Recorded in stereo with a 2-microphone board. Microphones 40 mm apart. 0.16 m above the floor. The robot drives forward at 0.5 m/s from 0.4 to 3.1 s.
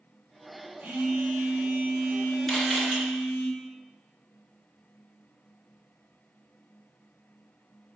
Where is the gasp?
No gasp in this recording.